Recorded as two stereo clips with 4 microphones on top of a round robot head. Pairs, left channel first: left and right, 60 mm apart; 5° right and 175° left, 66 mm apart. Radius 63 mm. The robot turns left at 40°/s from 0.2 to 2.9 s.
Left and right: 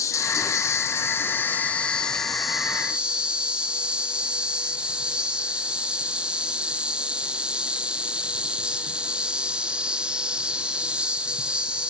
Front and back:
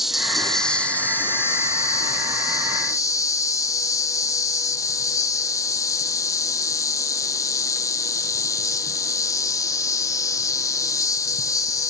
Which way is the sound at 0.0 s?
90° left.